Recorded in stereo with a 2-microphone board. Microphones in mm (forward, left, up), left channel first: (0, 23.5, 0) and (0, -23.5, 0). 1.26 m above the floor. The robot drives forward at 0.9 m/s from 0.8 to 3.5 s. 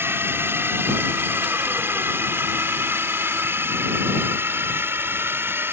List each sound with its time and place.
0.0 s a drone: 50° right (ahead or behind)